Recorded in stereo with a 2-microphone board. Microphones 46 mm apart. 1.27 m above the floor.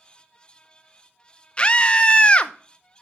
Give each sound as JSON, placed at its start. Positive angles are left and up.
{"t": 1.6, "sound": "a scream", "side_deg": 25, "distance_m": 0.6}